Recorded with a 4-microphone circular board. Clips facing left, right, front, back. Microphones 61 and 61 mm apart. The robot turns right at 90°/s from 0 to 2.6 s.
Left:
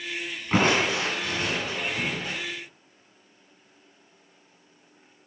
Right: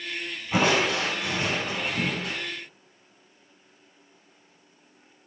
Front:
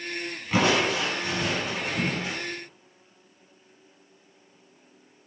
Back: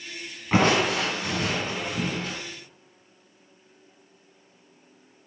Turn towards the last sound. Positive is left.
turn(degrees=-45)